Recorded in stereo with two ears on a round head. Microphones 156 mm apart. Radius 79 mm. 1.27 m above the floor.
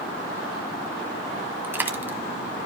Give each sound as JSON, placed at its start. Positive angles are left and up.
{"t": 1.6, "sound": "a dropped coin", "side_deg": -10, "distance_m": 1.2}